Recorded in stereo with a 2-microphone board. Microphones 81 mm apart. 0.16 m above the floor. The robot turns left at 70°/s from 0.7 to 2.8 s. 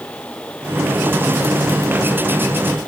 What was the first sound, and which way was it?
Only background noise.